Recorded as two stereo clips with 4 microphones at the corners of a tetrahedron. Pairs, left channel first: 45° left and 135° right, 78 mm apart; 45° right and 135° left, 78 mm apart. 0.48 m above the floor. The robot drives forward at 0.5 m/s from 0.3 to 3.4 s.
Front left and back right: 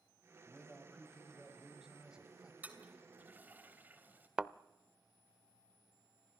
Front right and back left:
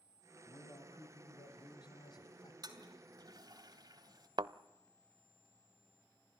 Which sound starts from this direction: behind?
A toilet flushing, at 2.6 s.